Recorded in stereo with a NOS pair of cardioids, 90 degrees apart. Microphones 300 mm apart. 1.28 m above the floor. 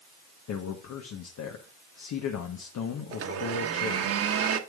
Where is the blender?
50° right, 1.4 m.